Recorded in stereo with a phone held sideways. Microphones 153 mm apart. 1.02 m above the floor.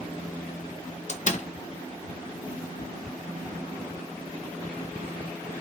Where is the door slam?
50° left (ahead or behind), 0.6 m.